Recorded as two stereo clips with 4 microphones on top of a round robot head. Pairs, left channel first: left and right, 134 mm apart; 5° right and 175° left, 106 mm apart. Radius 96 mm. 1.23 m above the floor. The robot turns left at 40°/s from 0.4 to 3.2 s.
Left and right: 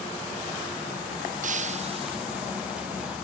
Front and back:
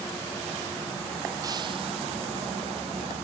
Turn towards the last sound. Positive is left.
turn(degrees=175)